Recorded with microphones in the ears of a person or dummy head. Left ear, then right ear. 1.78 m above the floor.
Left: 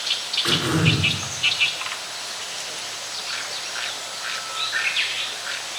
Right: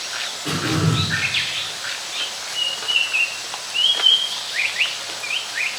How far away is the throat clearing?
About 4 m.